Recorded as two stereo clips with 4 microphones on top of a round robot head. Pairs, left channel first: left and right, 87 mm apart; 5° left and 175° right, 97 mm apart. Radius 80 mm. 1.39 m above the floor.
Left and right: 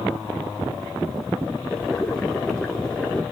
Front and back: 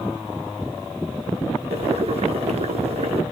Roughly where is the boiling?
Behind.